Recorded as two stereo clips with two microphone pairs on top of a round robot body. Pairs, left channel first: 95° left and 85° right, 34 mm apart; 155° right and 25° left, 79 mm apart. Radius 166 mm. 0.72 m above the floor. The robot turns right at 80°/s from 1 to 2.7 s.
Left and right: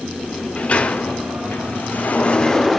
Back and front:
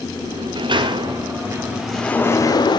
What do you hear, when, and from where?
0.2 s a sliding door: 45° left, 1.6 m; by 2.8 s straight behind, 1.6 m